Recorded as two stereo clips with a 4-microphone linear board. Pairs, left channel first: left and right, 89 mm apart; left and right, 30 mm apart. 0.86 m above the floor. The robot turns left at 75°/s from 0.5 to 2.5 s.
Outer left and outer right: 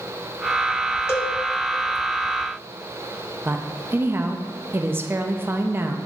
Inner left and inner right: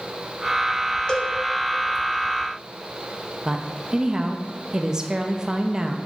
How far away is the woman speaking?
About 0.7 m.